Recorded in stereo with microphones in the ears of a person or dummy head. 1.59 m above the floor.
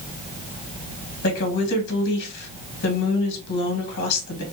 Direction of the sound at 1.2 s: 55° left (ahead or behind).